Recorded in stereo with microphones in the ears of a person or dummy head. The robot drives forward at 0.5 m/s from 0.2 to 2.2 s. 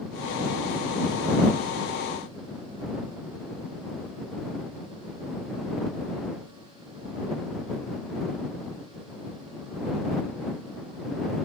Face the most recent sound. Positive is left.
No sound to turn to.